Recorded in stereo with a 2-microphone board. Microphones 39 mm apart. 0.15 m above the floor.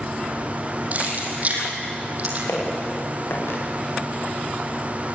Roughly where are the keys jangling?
Right.